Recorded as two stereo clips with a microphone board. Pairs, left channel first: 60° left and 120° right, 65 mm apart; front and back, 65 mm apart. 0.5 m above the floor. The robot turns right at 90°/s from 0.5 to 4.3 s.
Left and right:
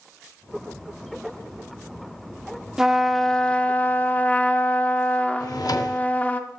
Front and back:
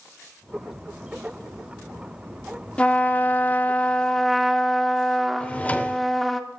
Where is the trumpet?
50° right, 0.6 m; by 6.4 s 85° left, 0.6 m.